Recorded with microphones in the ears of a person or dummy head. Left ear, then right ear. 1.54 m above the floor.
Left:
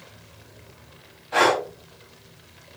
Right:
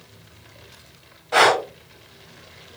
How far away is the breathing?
About 0.8 m.